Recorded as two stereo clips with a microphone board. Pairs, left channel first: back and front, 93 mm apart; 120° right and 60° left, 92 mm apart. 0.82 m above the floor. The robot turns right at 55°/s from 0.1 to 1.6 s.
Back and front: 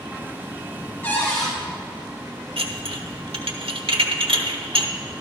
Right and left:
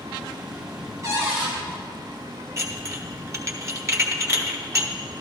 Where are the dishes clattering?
5° left, 1.1 m.